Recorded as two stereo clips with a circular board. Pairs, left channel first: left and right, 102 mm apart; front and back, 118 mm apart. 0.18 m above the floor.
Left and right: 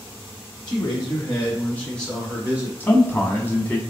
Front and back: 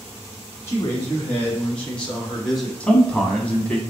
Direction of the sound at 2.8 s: 60° left.